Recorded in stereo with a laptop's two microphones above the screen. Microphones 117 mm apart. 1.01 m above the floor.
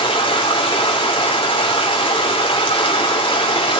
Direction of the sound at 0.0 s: 45° left (ahead or behind).